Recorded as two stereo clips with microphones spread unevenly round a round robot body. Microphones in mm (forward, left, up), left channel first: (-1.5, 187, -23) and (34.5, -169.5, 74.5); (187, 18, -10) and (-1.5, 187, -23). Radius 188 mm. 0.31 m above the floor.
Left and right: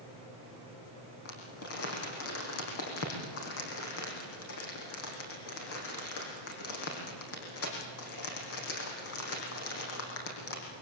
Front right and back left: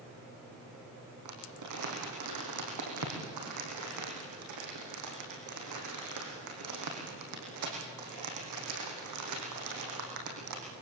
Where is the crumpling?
150° left, 5.5 m.